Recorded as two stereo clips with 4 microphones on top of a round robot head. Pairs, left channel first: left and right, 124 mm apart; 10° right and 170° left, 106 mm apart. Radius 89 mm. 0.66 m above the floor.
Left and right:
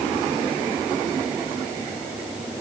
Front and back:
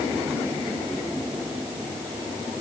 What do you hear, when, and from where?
Only background noise.